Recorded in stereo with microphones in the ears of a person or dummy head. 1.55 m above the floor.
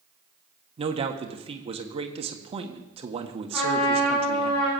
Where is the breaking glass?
No breaking glass in this recording.